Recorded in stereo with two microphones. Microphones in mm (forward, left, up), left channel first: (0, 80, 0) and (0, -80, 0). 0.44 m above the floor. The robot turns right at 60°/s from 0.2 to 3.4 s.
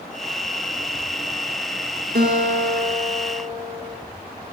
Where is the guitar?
105° right, 2.0 m; by 4.0 s 30° right, 2.0 m.